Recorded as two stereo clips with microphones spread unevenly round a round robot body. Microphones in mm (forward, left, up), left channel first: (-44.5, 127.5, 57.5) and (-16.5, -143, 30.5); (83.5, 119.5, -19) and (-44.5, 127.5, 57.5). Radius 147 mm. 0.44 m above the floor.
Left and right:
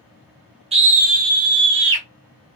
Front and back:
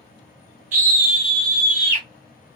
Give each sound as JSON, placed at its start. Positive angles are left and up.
{"t": 0.7, "sound": "a scream", "azimuth_deg": -130, "distance_m": 1.2}